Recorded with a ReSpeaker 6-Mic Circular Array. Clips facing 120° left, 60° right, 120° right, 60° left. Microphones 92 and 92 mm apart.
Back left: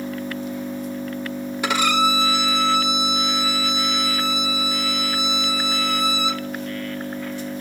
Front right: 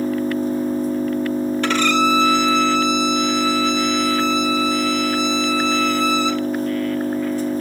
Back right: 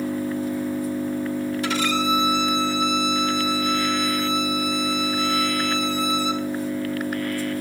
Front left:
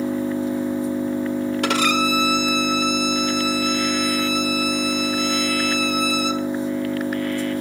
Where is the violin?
45° left, 1.2 m.